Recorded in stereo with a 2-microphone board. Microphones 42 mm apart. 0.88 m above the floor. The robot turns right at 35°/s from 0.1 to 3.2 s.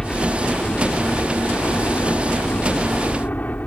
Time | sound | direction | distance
0.0 | a helicopter | 20° left | ?